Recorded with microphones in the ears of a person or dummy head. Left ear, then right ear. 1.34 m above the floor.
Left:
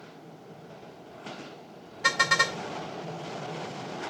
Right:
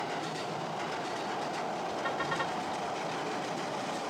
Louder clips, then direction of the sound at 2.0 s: Left 12 dB; 70° left (ahead or behind).